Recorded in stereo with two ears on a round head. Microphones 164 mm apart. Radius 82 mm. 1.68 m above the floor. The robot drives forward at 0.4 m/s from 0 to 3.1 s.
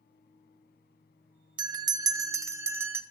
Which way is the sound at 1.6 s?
25° right (ahead or behind).